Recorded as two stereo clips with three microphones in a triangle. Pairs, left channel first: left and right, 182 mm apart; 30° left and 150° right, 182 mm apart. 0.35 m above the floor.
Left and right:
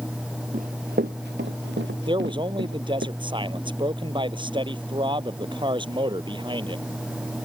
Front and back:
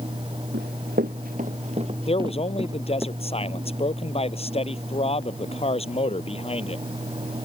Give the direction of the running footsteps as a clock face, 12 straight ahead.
4 o'clock.